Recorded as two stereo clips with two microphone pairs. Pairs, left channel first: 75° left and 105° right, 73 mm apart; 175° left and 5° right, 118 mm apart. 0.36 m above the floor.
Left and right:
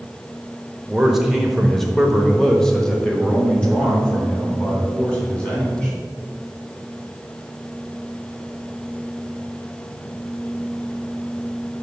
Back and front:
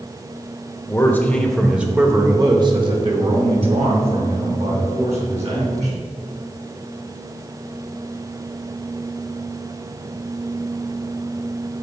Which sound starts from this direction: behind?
A man speaking, at 0.9 s.